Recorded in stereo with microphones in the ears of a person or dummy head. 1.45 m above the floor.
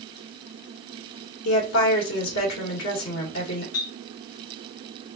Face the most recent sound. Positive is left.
turn(degrees=75)  # may be behind; listen again after turning